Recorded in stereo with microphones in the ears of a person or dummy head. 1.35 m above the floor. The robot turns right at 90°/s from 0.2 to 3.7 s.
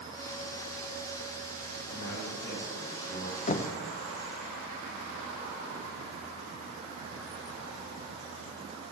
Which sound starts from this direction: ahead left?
A man speaking, at 1.9 s.